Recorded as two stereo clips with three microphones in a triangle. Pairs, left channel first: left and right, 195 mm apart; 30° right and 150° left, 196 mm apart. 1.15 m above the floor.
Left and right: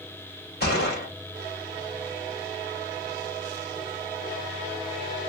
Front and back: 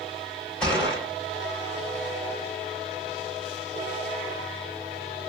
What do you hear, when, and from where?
0.6 s a gunshot: 55° left, 1.7 m